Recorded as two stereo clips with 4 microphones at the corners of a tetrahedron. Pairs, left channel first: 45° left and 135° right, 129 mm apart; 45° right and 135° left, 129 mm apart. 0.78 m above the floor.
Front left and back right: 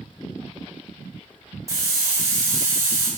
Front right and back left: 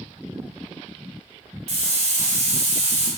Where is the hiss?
160° left, 3 m.